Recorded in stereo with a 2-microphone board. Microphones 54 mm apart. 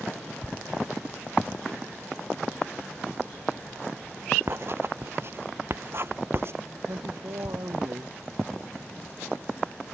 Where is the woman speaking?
85° right.